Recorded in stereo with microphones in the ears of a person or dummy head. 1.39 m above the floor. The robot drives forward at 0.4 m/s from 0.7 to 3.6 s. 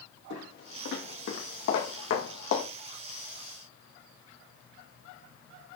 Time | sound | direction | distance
0.3 | footsteps | 65° left (ahead or behind) | 4.5 m